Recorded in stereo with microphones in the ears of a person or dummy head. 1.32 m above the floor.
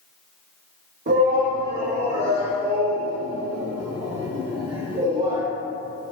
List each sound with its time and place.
1.1 s a shout: 45° right (ahead or behind), 1.7 m; by 5.4 s 15° right (ahead or behind), 3.5 m